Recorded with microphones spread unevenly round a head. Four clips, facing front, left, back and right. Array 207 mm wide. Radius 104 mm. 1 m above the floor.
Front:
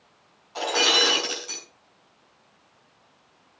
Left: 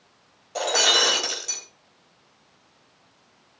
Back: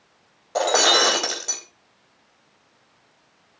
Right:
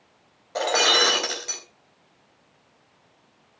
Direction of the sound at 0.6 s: 165° right.